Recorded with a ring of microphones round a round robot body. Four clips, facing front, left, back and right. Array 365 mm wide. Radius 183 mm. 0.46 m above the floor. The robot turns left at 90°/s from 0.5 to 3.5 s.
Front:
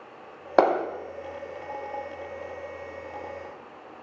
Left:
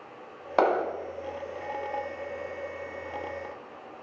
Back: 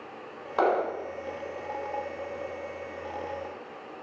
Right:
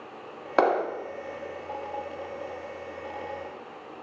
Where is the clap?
15° right, 2 m; by 0.8 s 35° right, 2 m.